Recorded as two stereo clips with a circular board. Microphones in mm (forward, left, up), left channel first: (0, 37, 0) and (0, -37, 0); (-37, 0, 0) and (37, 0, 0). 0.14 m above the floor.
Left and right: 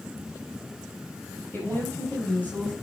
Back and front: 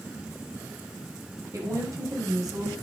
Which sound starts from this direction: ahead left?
A woman speaking, at 1.5 s.